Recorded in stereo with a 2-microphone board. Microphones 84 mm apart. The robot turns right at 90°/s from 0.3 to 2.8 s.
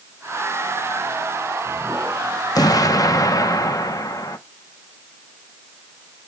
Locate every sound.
2.5 s an explosion: 55° left (ahead or behind), 0.9 m; by 4.4 s 50° left (ahead or behind), 0.9 m